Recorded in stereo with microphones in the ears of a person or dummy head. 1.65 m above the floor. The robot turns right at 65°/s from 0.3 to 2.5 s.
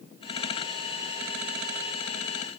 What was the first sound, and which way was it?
Only background noise.